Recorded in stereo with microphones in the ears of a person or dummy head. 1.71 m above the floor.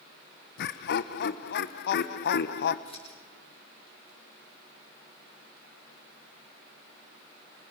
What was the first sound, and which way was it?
Laughter, 60° left (ahead or behind).